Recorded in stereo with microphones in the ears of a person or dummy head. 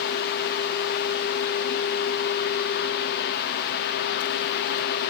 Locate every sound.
Only background noise.